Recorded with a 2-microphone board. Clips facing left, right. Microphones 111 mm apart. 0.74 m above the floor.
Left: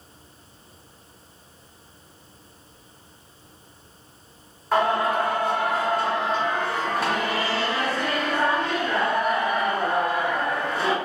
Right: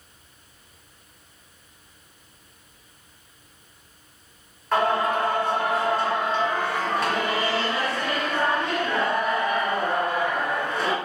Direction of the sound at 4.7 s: 10° left (ahead or behind).